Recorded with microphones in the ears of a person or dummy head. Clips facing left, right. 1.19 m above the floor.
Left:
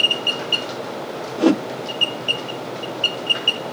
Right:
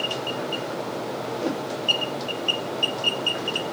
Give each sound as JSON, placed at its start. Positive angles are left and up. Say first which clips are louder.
{"t": 1.4, "sound": "a whoosh", "louder": "left 13 dB", "side_deg": 80}